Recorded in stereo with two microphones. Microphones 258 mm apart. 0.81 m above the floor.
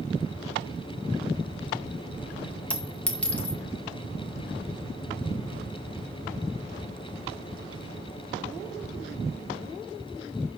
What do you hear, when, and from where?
2.7 s a clink: 5° left (ahead or behind), 1.5 m